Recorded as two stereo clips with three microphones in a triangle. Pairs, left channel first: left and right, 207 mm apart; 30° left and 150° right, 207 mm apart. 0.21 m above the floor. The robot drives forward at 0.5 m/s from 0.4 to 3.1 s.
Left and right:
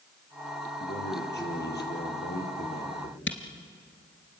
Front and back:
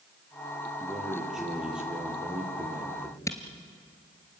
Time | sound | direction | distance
0.8 | a man speaking | 120° left | 5.5 m
3.3 | a camera shutter | 105° left | 1.8 m